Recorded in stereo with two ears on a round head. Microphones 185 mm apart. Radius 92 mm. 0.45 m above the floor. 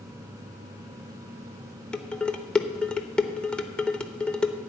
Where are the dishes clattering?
5° left (ahead or behind), 0.7 m.